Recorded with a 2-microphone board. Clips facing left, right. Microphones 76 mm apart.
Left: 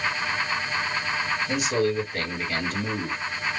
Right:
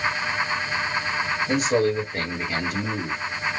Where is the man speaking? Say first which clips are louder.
Right 4 dB; 40° right (ahead or behind), 1.8 m; by 3.2 s 5° left (ahead or behind), 1.4 m.